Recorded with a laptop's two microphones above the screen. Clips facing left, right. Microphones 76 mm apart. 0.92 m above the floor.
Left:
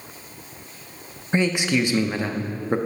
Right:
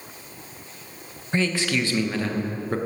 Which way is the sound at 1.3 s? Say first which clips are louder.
Left 3 dB; 15° left (ahead or behind).